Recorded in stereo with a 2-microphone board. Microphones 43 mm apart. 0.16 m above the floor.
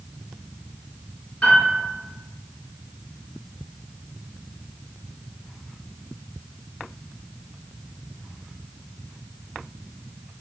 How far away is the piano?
About 1.6 m.